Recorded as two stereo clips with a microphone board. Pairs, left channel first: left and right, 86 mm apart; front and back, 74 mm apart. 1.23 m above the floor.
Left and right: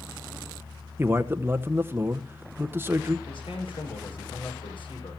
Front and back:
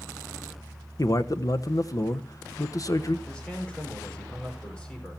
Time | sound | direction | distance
1.0 | a man speaking | 30° right | 0.9 m
3.3 | a man speaking | 75° left | 4.5 m